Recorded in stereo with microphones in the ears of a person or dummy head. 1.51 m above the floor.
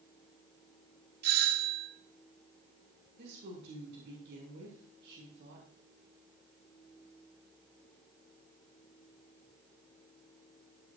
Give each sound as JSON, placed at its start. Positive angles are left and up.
{"t": 1.2, "sound": "a doorbell", "side_deg": -55, "distance_m": 2.0}
{"t": 3.2, "sound": "a woman speaking", "side_deg": -65, "distance_m": 5.5}